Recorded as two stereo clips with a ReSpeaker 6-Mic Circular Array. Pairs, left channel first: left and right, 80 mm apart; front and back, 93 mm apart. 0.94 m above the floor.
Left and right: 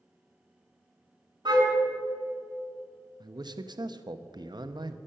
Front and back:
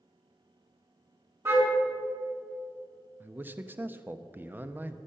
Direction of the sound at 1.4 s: 120° right.